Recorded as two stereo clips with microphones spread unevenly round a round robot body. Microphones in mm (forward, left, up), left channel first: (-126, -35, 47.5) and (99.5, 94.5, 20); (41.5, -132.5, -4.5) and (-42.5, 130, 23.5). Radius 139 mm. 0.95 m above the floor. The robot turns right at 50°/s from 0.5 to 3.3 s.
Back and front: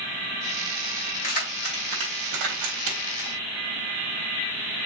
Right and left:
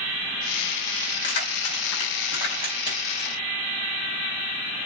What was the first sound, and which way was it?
Keys jangling, 80° right.